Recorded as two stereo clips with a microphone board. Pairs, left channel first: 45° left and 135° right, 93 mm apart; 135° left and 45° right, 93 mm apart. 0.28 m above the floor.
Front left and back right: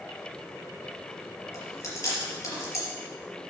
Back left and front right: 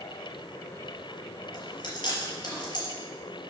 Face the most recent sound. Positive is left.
turn(degrees=100)